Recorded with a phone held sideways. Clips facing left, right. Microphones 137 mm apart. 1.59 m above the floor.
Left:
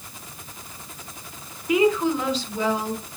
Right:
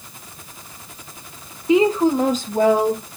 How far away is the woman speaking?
About 1.3 m.